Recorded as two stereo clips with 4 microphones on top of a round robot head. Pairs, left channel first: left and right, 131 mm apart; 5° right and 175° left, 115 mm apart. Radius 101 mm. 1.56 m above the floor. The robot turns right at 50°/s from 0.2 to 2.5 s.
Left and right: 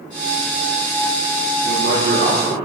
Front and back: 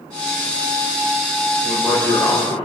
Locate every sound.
1.6 s a man speaking: 90° right, 4 m; by 2.5 s 45° right, 4 m